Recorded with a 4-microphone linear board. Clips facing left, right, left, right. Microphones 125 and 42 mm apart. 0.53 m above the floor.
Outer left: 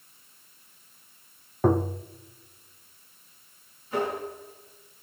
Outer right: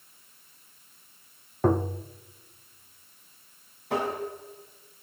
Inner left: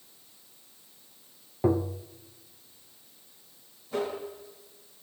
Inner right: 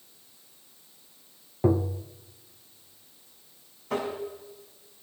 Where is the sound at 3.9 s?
75° right (ahead or behind), 5 m.